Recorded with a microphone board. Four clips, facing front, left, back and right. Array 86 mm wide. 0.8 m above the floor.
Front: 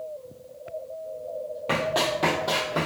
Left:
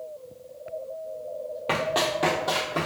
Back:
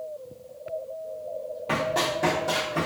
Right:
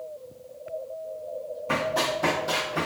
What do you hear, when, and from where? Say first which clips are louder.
1.7 s running footsteps: left 1 dB, front 1 dB; 70° left, 1.2 m; by 2.9 s 40° left, 1.6 m